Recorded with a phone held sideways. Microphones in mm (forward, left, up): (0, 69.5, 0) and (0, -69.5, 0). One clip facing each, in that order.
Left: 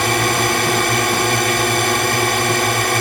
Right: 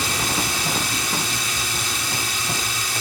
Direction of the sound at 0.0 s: 65° left (ahead or behind).